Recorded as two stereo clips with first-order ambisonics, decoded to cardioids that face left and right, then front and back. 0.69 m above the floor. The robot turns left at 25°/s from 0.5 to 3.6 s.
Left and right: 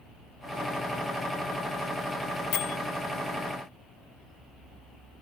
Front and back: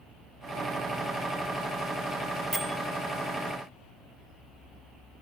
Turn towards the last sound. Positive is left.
turn(degrees=65)